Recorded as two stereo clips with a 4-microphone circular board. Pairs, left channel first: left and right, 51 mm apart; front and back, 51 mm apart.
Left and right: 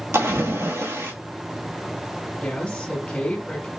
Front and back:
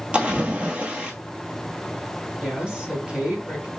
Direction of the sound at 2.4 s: 135° left.